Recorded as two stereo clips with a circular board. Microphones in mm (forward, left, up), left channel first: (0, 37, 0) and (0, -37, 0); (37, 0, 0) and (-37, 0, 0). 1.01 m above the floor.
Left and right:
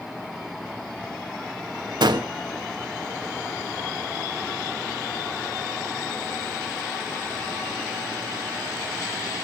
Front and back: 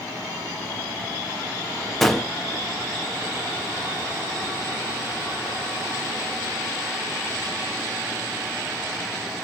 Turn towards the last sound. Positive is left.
turn(degrees=-85)